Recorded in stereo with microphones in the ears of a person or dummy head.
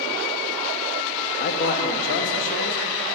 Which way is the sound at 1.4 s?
55° left (ahead or behind).